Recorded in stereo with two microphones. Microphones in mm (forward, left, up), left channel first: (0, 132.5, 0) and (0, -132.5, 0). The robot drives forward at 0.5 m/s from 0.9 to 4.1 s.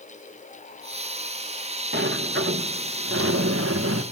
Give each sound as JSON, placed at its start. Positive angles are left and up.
{"t": 1.9, "sound": "a sliding door", "side_deg": -40, "distance_m": 1.3}